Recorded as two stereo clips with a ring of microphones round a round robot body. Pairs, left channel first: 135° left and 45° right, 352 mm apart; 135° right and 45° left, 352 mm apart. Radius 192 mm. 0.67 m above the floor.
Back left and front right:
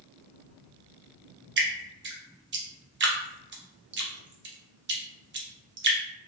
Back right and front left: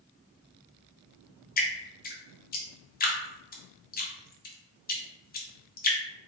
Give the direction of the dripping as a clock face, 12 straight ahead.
3 o'clock.